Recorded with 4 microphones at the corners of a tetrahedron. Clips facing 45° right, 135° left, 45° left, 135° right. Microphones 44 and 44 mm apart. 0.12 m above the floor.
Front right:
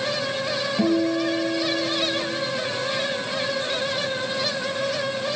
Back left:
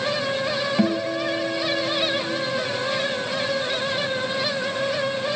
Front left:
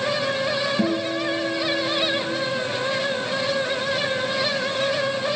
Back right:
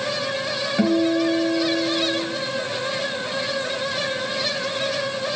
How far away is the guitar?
About 2.5 m.